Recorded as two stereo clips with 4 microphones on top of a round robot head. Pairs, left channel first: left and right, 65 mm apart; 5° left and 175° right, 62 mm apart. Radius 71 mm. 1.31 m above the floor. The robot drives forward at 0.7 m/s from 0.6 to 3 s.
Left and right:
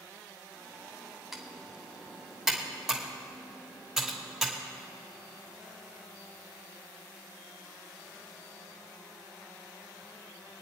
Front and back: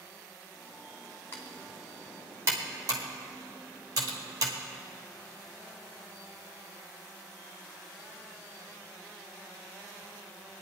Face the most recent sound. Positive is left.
turn(degrees=180)